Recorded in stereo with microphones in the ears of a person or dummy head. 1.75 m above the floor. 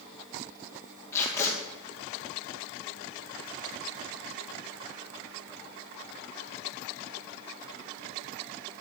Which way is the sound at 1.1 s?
15° left (ahead or behind).